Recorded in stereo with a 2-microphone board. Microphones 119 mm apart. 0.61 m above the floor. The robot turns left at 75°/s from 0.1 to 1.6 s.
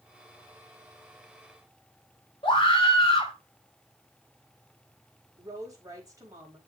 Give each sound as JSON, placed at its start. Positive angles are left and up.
{"t": 2.4, "sound": "a scream", "side_deg": 45, "distance_m": 2.5}
{"t": 5.4, "sound": "a woman speaking", "side_deg": -30, "distance_m": 3.5}